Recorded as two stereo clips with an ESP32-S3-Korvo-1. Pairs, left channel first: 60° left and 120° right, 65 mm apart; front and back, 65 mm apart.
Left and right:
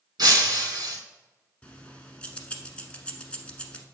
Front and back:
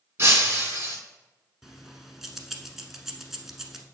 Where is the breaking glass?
125° right, 3.5 m.